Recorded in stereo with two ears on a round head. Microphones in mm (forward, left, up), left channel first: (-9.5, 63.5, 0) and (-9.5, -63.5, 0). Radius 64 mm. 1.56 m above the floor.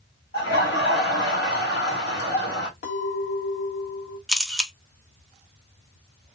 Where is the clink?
55° left (ahead or behind), 1.3 m.